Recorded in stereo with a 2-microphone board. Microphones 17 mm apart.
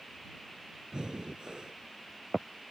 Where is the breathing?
60° right (ahead or behind).